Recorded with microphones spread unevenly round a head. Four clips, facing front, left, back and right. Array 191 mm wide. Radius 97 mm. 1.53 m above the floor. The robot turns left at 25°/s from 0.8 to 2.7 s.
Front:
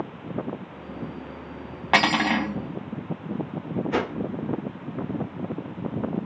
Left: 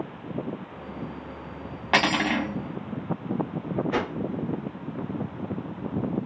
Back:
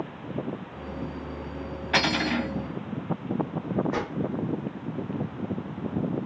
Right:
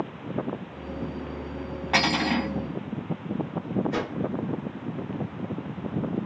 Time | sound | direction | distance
1.9 | cutlery clinking | 10° left | 1.1 m
3.9 | a whoosh | 10° left | 0.8 m